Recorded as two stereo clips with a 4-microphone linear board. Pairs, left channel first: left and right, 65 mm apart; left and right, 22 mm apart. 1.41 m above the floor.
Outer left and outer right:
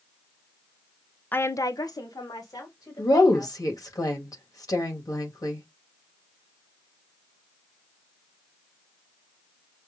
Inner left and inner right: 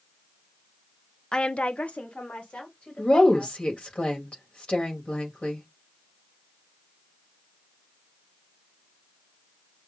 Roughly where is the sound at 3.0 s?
Left.